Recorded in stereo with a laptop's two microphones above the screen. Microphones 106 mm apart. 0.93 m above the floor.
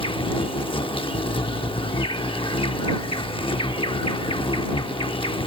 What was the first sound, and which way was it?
An insect, 55° left (ahead or behind).